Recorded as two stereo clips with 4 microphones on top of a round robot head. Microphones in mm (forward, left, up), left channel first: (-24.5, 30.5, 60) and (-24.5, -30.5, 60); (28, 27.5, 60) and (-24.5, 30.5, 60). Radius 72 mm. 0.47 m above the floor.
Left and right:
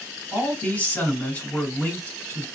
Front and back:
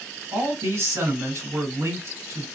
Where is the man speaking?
155° left, 2.5 m.